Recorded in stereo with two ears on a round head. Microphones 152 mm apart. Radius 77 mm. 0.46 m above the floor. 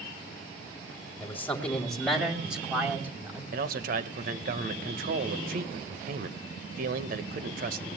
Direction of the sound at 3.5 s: 55° right (ahead or behind).